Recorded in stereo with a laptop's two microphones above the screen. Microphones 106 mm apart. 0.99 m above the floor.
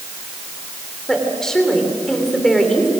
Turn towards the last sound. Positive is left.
turn(degrees=5)  # may be behind; listen again after turning